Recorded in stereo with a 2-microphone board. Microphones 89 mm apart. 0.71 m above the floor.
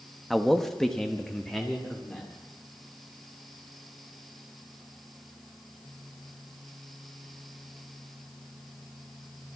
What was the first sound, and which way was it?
A man speaking, centre (ahead or behind).